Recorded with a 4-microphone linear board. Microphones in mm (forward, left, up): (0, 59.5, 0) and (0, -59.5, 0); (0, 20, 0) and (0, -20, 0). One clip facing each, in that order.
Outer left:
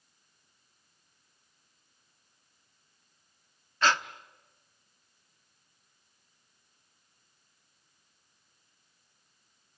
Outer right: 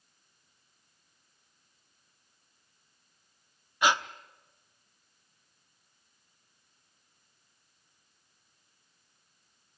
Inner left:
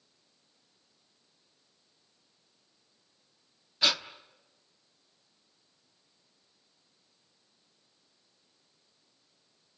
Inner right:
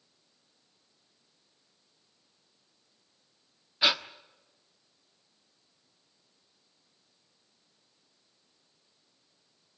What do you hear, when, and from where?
3.8 s breathing: 15° right (ahead or behind), 1.0 m